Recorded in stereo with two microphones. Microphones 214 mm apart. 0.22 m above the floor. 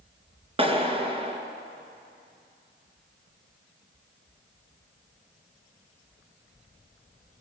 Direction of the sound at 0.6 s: 30° right (ahead or behind).